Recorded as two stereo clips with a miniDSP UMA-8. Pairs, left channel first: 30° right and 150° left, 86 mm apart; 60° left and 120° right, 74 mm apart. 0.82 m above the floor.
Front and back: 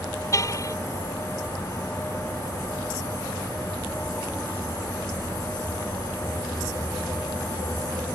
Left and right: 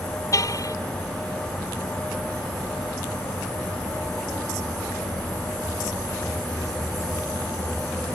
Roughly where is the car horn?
Ahead.